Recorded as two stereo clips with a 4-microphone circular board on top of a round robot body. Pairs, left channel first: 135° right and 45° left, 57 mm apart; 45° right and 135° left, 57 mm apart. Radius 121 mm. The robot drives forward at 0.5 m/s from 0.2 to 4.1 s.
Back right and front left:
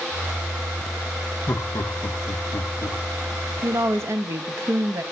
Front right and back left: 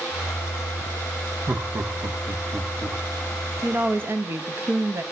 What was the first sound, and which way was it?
Laughter, straight behind.